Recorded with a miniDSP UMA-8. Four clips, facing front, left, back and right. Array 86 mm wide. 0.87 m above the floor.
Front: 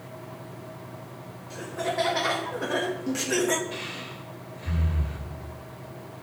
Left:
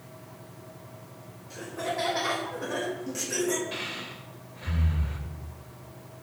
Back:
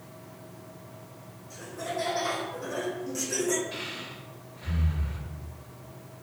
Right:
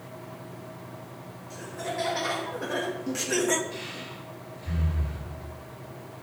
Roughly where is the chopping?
I don't hear chopping.